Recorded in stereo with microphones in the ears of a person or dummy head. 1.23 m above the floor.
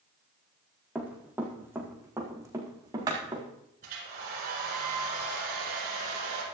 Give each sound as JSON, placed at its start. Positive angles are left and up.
{"t": 0.9, "sound": "running footsteps", "side_deg": -10, "distance_m": 4.5}
{"t": 3.8, "sound": "a hair dryer", "side_deg": -50, "distance_m": 8.0}